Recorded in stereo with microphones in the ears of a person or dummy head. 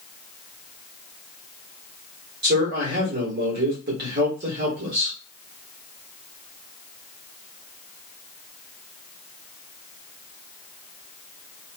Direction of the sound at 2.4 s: 55° right (ahead or behind).